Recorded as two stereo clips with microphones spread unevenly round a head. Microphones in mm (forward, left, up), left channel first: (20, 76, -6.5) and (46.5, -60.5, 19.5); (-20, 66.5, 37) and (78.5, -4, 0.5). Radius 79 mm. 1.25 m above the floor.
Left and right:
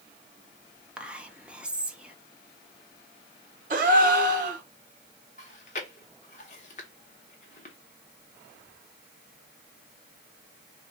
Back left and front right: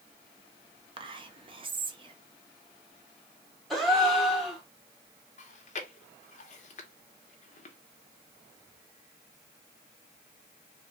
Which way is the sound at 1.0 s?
5° left.